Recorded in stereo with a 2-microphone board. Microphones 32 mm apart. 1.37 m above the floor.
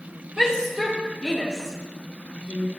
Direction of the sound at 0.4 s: 15° right (ahead or behind).